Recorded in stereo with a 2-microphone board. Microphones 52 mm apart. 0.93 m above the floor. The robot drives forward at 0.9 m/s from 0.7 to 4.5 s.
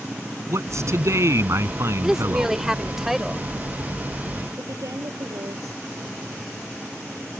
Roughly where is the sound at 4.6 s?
Right.